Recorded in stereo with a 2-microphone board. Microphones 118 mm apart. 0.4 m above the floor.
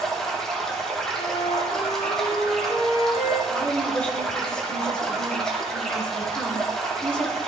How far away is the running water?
About 6.5 m.